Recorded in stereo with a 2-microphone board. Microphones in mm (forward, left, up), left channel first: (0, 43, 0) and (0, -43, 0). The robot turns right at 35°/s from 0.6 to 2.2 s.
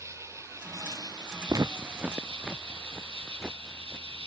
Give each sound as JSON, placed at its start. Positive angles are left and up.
{"t": 0.0, "sound": "an insect", "azimuth_deg": -145}
{"t": 1.5, "sound": "footsteps", "side_deg": -45}